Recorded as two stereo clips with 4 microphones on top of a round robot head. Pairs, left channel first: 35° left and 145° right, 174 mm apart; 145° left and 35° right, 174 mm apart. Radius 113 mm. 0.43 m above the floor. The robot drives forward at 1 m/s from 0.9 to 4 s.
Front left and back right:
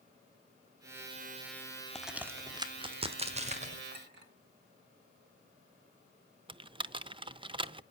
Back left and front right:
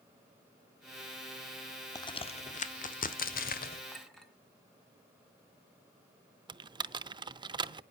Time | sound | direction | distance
1.9 | a crack | 115° left | 1.0 m
3.9 | a clink | 125° right | 2.5 m
6.5 | typing on a keyboard | 90° right | 0.6 m